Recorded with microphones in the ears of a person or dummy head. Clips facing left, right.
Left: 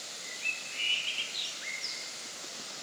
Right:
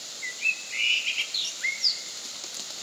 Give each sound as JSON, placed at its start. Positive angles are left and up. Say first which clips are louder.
{"t": 0.2, "sound": "a bird", "louder": "right 2 dB", "side_deg": -30, "distance_m": 1.1}